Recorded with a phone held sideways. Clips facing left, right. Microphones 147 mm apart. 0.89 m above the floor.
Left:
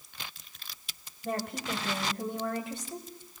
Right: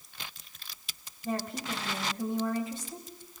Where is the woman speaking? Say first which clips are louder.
Even; 75° left (ahead or behind), 5.5 m.